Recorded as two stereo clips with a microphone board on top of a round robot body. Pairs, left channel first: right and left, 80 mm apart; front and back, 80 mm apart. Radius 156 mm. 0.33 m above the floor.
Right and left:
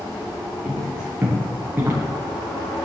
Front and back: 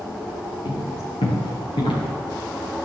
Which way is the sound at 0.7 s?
5° left.